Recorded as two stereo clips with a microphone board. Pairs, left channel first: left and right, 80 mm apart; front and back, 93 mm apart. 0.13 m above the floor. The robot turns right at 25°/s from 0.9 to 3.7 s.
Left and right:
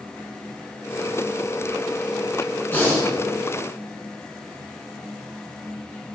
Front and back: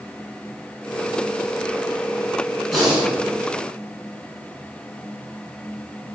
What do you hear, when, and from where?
2.7 s breathing: 95° left, 1.0 m; by 3.1 s 105° left, 1.0 m